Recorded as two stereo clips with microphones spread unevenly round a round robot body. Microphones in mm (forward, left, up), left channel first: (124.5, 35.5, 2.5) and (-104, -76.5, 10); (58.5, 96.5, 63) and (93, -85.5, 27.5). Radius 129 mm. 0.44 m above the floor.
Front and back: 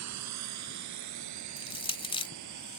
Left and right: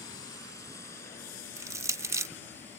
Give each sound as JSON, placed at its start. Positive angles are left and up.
{"t": 0.0, "sound": "a drone", "azimuth_deg": 175}
{"t": 1.6, "sound": "crushing", "azimuth_deg": -30}